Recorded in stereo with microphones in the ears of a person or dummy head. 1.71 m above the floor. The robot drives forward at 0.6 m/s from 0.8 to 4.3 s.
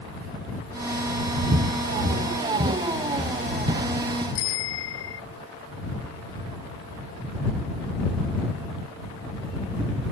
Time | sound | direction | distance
1.5 | footsteps | 50° right (ahead or behind) | ?
4.3 | a bicycle bell | 80° left | ?